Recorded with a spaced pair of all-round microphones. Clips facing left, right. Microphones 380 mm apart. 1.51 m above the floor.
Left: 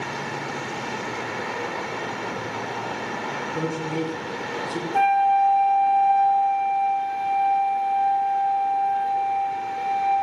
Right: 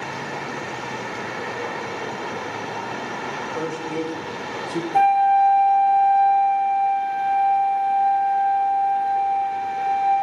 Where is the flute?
25° left (ahead or behind), 2.5 m.